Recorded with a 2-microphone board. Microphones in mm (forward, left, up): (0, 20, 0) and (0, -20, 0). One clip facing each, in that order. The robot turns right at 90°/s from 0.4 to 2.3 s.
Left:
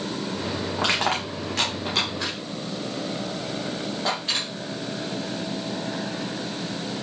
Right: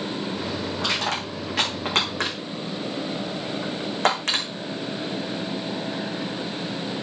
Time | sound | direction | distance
0.8 | crushing | 60° left (ahead or behind) | 4 m